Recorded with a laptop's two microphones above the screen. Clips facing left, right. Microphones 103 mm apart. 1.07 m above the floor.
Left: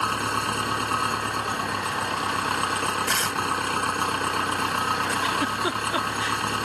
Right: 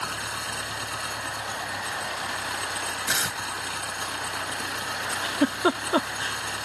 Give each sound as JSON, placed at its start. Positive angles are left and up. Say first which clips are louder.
{"t": 0.0, "sound": "an engine running", "louder": "left 8 dB", "side_deg": 55}
{"t": 3.1, "sound": "tearing paper", "louder": "left 4 dB", "side_deg": -10}
{"t": 5.1, "sound": "a giggle", "louder": "even", "side_deg": -35}